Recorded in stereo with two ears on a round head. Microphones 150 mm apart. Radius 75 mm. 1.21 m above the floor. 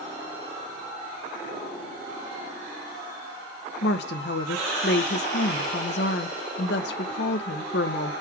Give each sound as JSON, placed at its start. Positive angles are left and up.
{"t": 3.8, "sound": "a woman speaking", "side_deg": 70, "distance_m": 0.8}